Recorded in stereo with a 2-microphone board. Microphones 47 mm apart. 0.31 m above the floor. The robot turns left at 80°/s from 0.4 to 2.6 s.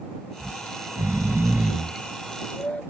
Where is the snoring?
35° right (ahead or behind); by 2.8 s 30° left (ahead or behind).